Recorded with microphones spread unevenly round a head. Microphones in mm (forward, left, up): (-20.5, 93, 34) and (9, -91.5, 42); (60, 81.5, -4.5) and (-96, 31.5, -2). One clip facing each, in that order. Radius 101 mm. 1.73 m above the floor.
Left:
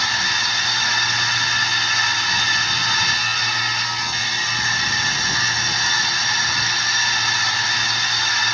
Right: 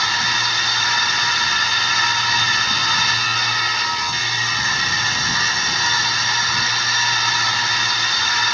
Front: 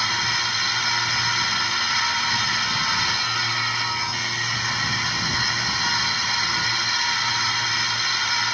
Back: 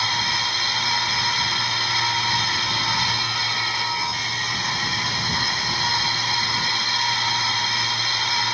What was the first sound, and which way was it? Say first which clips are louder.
A machine running: right 2 dB, back 2 dB; 95° right.